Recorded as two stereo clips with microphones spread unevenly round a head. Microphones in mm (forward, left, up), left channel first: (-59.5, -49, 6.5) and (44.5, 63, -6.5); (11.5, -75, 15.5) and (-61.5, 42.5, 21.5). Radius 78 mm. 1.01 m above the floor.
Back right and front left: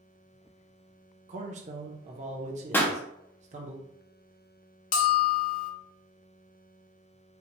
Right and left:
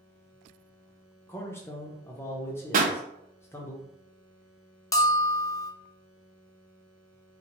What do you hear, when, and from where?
1.3 s a man speaking: 10° left, 0.7 m
2.7 s a pop: 150° left, 0.6 m
4.9 s a bell: 125° right, 0.5 m